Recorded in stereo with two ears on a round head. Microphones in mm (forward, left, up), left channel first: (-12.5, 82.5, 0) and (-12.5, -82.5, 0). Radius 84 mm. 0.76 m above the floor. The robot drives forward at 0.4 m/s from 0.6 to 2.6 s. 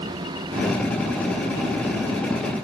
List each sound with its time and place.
Only background noise.